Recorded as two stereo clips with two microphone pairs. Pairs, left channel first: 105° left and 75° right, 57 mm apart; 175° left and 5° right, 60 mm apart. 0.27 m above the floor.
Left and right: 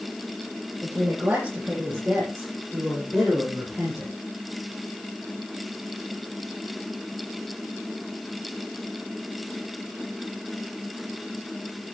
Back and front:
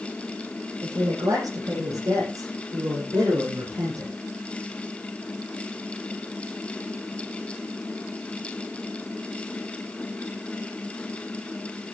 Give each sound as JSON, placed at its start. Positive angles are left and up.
{"t": 0.8, "sound": "a woman speaking", "azimuth_deg": -15, "distance_m": 10.0}